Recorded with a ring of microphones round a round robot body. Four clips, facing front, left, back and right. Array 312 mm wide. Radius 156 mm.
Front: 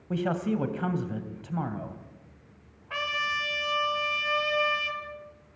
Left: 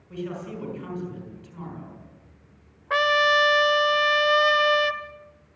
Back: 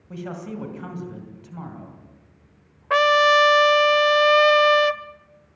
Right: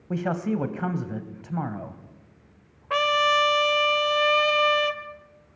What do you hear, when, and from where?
0.1 s a man speaking: 60° right, 2.5 m
2.9 s a trumpet: 175° left, 0.9 m